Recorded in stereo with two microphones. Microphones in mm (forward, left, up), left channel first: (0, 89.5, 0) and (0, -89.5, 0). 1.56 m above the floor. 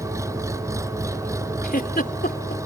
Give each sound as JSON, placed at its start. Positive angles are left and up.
{"t": 0.0, "sound": "an engine running", "side_deg": -15}
{"t": 1.6, "sound": "a giggle", "side_deg": 55}